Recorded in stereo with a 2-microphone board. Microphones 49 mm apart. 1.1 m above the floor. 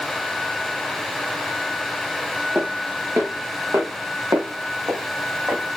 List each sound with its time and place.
2.5 s footsteps: 60° right (ahead or behind), 4 m; by 5.8 s 75° right (ahead or behind), 4.5 m